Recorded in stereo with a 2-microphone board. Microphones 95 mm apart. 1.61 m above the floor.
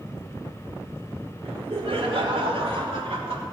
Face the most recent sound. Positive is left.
turn(degrees=-75)  # may be behind; listen again after turning